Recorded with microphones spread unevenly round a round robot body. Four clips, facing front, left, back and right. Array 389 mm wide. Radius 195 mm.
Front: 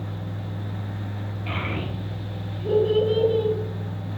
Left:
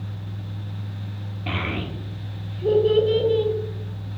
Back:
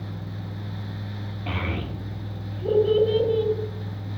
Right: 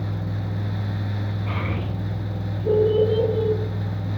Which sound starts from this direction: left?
A child speaking, at 1.5 s.